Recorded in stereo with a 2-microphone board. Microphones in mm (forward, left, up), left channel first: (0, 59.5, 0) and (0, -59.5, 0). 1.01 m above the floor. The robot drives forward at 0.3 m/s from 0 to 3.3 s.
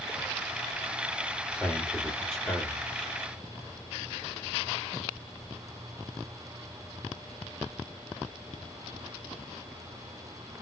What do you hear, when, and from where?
1.5 s a man speaking: 5° left (ahead or behind), 1.8 m